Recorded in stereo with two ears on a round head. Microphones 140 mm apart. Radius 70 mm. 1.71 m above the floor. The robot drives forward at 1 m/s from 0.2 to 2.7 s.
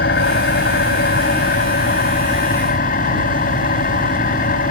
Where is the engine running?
80° left; by 4.7 s 60° left (ahead or behind).